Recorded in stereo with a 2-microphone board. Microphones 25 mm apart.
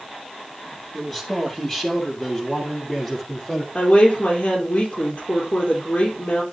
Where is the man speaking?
15° left (ahead or behind), 4 m; by 3.6 s 30° left (ahead or behind), 5 m.